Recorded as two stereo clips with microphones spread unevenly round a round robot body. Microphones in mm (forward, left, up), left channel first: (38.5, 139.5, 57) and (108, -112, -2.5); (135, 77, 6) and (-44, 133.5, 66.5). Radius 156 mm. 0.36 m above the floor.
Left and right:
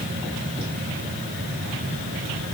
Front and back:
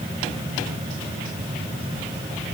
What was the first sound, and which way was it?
Only background noise.